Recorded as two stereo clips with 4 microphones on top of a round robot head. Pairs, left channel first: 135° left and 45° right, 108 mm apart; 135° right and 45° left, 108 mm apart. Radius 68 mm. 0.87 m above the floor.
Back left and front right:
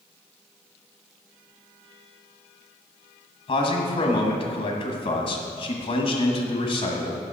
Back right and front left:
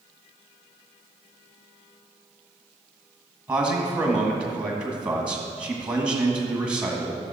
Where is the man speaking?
120° left, 1.6 m.